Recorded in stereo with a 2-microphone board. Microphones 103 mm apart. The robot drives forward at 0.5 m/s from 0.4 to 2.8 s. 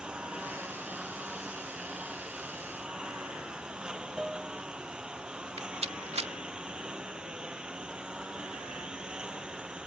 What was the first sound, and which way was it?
A lawn mower, 10° right (ahead or behind).